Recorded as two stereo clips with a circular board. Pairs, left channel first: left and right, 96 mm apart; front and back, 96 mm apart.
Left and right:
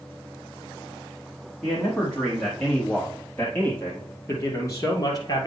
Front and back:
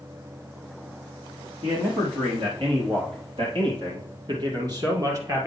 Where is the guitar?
No guitar in this recording.